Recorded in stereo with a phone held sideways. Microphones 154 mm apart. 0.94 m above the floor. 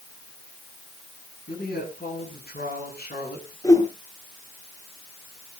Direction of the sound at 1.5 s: 85° left.